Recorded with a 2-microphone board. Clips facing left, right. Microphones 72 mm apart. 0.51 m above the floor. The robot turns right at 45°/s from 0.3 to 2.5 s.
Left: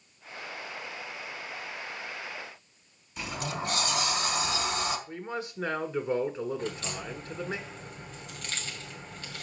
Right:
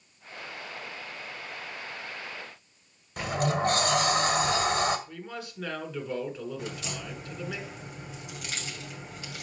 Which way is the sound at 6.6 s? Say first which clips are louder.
Left 2 dB; 10° right (ahead or behind).